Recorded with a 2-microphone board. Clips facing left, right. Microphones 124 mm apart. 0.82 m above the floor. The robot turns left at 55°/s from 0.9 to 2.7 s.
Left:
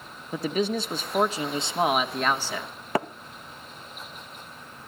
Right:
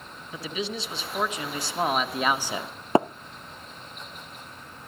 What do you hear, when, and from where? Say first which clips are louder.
0.3 s a man speaking: left 7 dB; 65° left, 1.4 m; by 2.7 s 30° right, 1.4 m
3.0 s tapping: right 6 dB; 25° right (ahead or behind), 0.5 m